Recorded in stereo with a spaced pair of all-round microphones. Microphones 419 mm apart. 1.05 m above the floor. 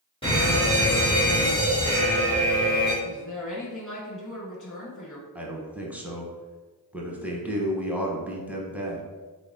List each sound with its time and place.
0.2 s a fire alarm: 15° left (ahead or behind), 1.7 m
3.0 s a woman speaking: 45° left (ahead or behind), 1.3 m
5.3 s a man speaking: 5° right (ahead or behind), 0.6 m